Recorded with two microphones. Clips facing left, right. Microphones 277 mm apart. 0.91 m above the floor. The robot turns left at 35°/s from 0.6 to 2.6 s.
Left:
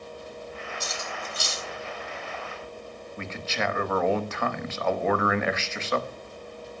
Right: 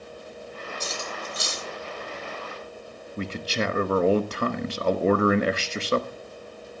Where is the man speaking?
40° right (ahead or behind), 1.1 m.